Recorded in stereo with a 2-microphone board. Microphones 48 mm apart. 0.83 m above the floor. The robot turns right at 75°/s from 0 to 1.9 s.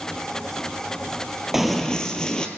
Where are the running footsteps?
10° right (ahead or behind), 1.3 m; by 2.5 s 15° left (ahead or behind), 1.3 m.